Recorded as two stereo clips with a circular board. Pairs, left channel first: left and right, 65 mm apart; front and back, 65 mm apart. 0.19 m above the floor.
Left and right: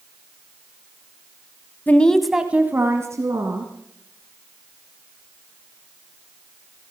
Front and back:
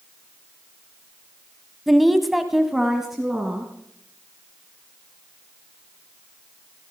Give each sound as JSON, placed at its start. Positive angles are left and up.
{"t": 1.9, "sound": "a woman speaking", "azimuth_deg": 90, "distance_m": 1.0}